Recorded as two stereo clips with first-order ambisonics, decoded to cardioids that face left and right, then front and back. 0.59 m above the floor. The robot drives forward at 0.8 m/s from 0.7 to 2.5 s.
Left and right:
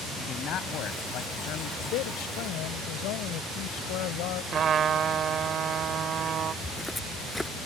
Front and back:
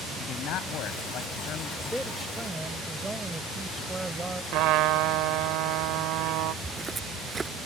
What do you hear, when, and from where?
0.2 s a man speaking: 45° left; by 1.7 s 50° left
1.8 s a man speaking: 85° left; by 4.4 s 100° left
4.5 s a trumpet: 150° right
6.6 s footsteps: 155° left